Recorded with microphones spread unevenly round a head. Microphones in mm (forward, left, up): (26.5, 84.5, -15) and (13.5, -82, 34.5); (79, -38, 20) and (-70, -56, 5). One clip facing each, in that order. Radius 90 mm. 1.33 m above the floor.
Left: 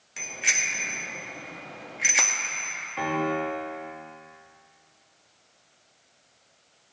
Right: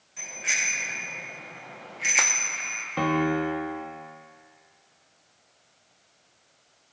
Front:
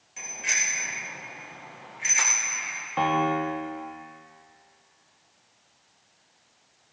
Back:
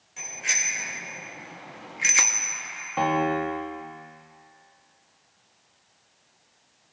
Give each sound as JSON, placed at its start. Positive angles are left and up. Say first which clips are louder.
{"t": 0.2, "sound": "a bicycle bell", "louder": "left 1 dB, even", "azimuth_deg": 95, "distance_m": 3.0}
{"t": 3.0, "sound": "a piano", "louder": "right 3 dB, back 1 dB", "azimuth_deg": -85, "distance_m": 1.4}